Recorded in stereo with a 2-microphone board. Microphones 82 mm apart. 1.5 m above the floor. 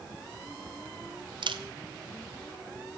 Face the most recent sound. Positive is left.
turn(degrees=-75)  # may be behind; listen again after turning